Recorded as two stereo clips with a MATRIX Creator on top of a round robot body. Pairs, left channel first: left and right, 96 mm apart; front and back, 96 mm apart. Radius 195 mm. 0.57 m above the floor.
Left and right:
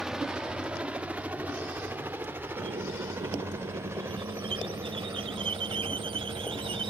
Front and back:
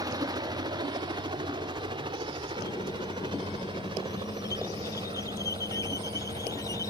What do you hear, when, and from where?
0.0 s a helicopter: 170° right; by 6.9 s 150° right
2.6 s a squeak: 60° right